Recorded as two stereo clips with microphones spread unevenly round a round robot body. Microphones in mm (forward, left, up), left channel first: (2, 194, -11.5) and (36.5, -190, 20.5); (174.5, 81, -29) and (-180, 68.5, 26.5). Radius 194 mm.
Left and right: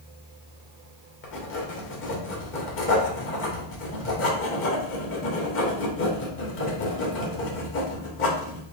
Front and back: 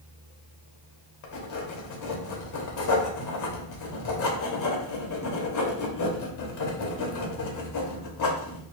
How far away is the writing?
About 1.1 m.